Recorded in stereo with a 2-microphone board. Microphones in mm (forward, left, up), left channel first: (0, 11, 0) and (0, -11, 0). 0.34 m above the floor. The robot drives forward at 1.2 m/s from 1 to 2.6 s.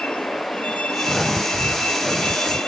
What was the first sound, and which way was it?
A vehicle, 60° left (ahead or behind).